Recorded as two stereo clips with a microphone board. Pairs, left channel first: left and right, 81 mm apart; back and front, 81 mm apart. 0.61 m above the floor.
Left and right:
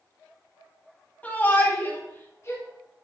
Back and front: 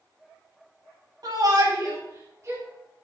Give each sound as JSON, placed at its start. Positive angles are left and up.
{"t": 1.2, "sound": "a shout", "azimuth_deg": 25, "distance_m": 4.0}